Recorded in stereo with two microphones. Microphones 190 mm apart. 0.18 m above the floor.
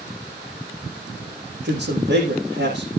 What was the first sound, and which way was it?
A man speaking, 70° right (ahead or behind).